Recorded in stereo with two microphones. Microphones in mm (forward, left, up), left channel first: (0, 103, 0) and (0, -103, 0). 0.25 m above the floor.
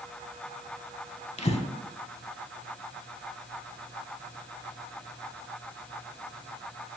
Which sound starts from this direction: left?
Breathing, at 1.4 s.